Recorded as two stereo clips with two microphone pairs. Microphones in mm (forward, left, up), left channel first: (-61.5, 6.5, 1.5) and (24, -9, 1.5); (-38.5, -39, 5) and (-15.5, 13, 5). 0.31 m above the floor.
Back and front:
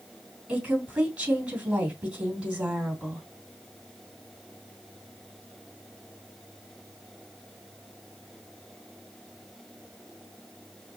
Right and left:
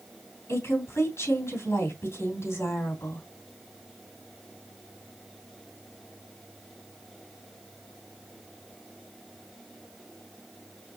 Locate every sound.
0.5 s a woman speaking: 85° right, 3.5 m